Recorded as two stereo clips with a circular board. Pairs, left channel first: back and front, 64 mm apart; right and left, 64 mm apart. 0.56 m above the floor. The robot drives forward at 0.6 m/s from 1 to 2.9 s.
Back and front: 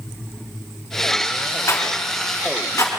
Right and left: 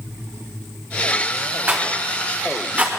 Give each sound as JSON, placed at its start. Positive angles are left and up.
{"t": 1.7, "sound": "a rattle", "azimuth_deg": 145, "distance_m": 2.5}